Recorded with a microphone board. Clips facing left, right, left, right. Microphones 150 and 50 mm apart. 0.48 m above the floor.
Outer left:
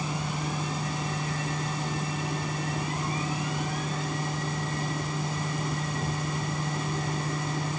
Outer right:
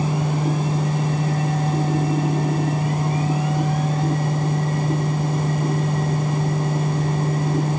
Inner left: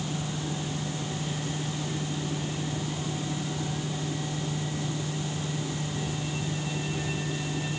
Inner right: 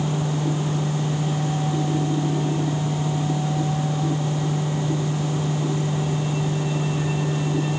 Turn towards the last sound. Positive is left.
No sound to turn to.